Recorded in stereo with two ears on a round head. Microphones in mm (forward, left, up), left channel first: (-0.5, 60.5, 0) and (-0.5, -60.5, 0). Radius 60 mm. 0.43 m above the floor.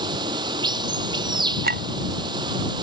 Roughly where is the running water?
Right.